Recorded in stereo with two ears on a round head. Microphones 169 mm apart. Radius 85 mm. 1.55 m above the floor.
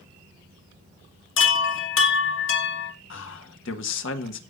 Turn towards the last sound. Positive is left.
turn(degrees=70)  # may be behind; listen again after turning